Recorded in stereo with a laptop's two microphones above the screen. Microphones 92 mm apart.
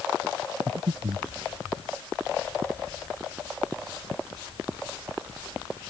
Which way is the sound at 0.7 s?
75° right (ahead or behind).